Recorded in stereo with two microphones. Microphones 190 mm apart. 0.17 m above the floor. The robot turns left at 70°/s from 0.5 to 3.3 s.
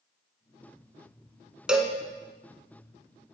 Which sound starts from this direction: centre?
A cowbell, at 1.7 s.